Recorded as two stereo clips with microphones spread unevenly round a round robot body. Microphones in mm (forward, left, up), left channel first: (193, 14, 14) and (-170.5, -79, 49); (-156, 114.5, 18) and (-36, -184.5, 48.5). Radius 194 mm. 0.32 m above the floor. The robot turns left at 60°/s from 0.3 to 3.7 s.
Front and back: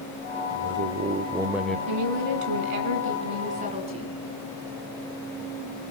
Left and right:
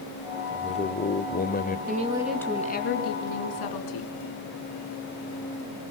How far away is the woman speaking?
About 3 m.